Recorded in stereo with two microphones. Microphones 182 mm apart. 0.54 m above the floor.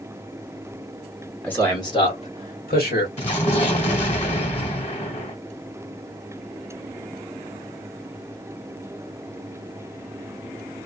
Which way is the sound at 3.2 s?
40° left (ahead or behind).